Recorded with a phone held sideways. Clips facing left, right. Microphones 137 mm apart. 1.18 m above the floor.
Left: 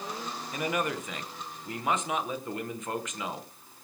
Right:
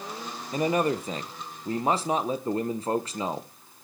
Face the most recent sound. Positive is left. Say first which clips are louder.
# right 7 dB
turn(degrees=-35)  # may be behind; listen again after turning